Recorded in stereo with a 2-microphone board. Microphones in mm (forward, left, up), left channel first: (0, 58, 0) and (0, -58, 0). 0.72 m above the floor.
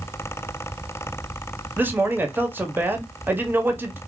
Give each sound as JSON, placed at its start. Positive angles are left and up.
{"t": 1.8, "sound": "a man speaking", "side_deg": -15, "distance_m": 0.9}